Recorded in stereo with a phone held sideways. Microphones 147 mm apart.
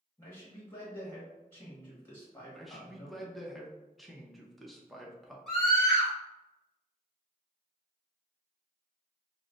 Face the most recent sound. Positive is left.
turn(degrees=5)  # may be behind; listen again after turning